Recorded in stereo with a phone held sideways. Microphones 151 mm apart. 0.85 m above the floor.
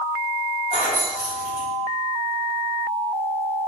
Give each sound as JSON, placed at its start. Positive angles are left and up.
{"t": 0.7, "sound": "keys jangling", "side_deg": 65, "distance_m": 1.5}